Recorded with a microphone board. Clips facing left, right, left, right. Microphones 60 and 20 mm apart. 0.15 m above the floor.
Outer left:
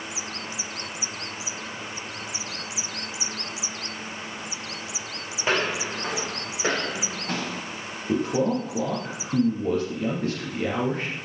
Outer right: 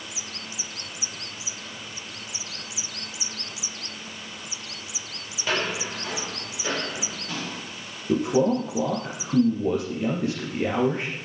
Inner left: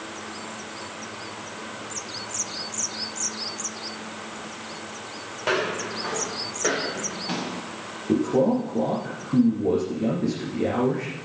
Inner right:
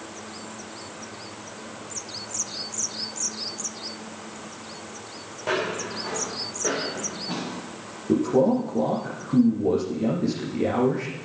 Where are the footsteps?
30° left (ahead or behind), 7 m; by 7.6 s 60° left (ahead or behind), 6.5 m.